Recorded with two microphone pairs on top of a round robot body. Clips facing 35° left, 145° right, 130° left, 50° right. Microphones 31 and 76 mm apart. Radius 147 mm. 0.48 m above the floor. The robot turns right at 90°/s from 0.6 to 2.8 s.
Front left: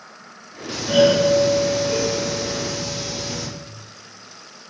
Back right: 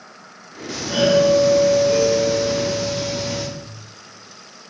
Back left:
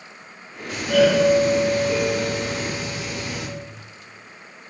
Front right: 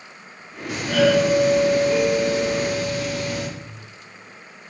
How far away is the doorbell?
About 1.6 m.